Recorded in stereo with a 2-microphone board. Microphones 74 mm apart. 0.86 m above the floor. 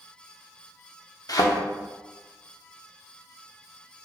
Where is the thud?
55° left (ahead or behind), 0.5 m.